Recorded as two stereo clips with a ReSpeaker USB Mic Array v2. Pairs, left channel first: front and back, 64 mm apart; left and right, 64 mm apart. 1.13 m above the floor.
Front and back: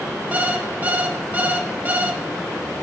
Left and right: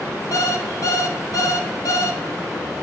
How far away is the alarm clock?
About 0.9 m.